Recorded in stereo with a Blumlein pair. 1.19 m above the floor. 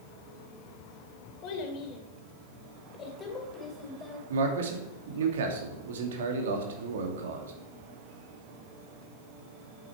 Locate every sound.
1.4 s a child speaking: 40° left, 3 m; by 4.2 s 15° left, 3.5 m
4.3 s a man speaking: 60° right, 2.5 m